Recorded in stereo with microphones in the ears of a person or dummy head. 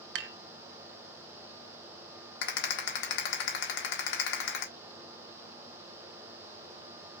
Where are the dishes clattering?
70° right (ahead or behind), 0.7 m.